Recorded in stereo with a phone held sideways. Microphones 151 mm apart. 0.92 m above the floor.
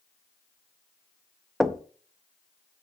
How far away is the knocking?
About 0.6 m.